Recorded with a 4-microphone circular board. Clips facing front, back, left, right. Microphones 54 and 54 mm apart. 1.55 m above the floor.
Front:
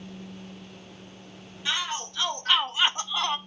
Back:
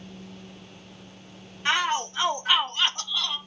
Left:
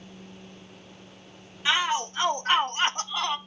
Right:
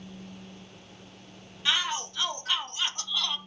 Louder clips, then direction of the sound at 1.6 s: Back 6 dB, left 4 dB; 155° left.